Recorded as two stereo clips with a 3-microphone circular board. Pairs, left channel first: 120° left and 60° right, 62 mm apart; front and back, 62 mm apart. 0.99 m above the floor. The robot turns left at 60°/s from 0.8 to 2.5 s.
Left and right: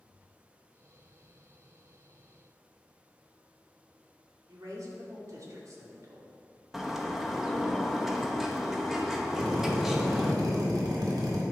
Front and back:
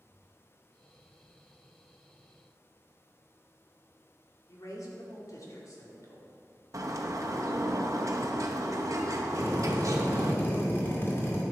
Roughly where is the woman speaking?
Ahead right.